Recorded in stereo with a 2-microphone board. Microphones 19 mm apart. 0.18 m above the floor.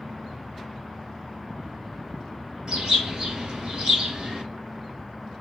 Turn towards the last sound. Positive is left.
turn(degrees=-40)  # may be behind; listen again after turning